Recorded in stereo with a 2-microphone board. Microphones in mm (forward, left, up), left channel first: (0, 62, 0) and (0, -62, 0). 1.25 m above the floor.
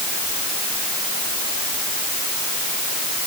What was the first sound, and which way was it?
Only background noise.